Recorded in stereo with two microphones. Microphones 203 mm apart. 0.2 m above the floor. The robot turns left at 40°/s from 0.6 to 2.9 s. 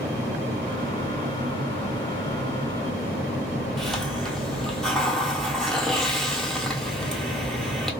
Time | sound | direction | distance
3.8 | a hiss | centre (ahead or behind) | 1.2 m